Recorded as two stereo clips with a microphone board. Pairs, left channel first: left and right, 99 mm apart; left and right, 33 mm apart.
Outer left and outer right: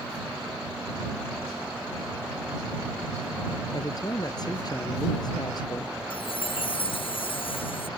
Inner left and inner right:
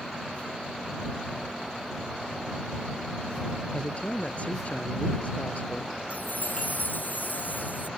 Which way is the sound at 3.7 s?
40° left (ahead or behind).